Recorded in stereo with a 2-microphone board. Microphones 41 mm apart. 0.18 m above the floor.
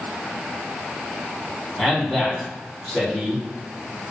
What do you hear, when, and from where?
1.8 s a man speaking: 10° left (ahead or behind), 1.2 m